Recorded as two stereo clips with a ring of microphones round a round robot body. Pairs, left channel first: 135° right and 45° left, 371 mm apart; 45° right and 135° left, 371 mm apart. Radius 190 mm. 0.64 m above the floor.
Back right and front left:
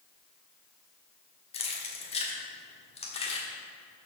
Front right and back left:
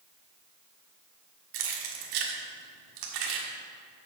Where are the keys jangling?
150° left, 1.5 m.